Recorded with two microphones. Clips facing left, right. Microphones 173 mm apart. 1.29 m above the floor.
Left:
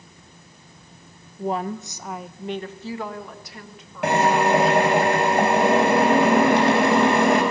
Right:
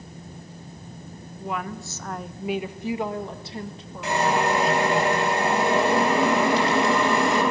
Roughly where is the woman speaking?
Left.